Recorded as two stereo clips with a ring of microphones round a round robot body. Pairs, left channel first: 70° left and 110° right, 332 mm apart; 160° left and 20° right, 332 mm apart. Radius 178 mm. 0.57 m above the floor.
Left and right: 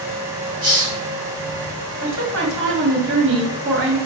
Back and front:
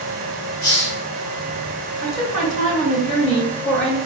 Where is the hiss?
175° right, 1.4 m.